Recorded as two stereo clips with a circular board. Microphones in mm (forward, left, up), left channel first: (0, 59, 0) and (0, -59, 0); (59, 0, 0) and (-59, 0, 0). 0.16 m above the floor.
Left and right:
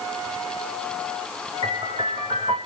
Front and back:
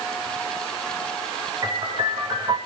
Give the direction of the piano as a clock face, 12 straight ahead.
4 o'clock.